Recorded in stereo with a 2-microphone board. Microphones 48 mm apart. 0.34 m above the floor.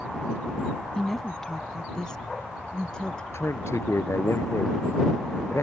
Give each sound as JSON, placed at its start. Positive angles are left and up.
{"t": 0.9, "sound": "a woman speaking", "side_deg": 10}
{"t": 3.3, "sound": "a man speaking", "side_deg": 80}